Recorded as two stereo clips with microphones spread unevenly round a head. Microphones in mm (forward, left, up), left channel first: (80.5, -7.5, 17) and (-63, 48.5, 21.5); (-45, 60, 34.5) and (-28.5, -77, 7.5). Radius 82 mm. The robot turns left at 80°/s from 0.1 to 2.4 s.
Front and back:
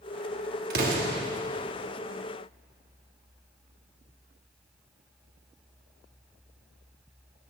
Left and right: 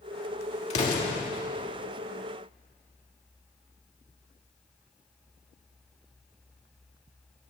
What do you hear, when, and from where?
0.7 s an explosion: 140° left, 3 m; by 1.2 s 100° left, 3 m